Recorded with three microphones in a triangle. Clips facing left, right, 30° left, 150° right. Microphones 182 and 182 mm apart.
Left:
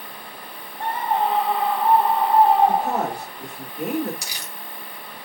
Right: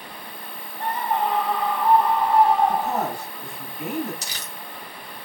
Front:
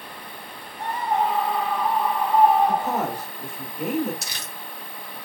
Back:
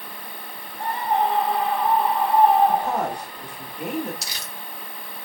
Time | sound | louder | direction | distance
0.8 | a scream | left 2 dB, back 1 dB | 150° left | 3.5 m
2.7 | a woman speaking | left 2 dB, back 1 dB | 115° left | 2 m
4.2 | crumpling | even, even | 15° left | 1.7 m